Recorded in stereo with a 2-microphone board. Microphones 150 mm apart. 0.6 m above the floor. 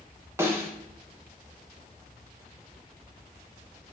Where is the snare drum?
15° right (ahead or behind), 1.6 m.